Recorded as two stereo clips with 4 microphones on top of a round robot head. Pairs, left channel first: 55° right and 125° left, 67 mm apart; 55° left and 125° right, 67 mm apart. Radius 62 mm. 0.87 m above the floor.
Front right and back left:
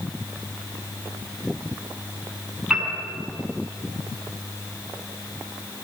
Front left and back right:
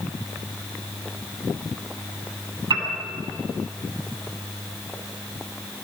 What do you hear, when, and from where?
2.7 s a piano: 150° right, 7.5 m